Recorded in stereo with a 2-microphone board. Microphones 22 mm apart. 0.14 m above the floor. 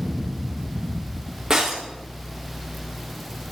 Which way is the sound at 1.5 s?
20° right (ahead or behind).